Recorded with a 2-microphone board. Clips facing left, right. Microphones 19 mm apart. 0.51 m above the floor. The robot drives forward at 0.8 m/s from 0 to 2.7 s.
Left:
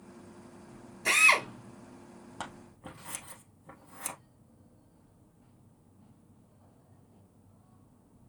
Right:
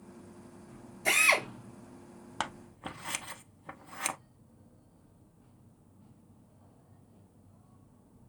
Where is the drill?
20° left (ahead or behind), 2.5 m.